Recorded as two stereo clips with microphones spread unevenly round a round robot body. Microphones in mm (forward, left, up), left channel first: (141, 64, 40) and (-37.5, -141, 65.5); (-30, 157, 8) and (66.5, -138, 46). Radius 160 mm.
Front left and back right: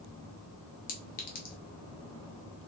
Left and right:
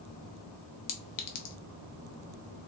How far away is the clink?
About 1.0 m.